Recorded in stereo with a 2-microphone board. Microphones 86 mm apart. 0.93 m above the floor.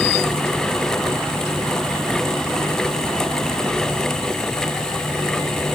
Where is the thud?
I don't hear a thud.